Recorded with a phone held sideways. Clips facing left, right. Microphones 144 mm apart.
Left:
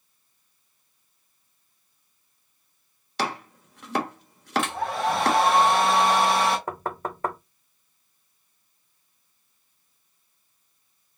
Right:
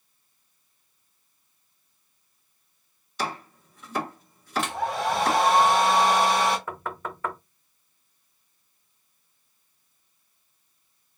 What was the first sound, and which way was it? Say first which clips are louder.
Chopping: left 2 dB; 75° left (ahead or behind).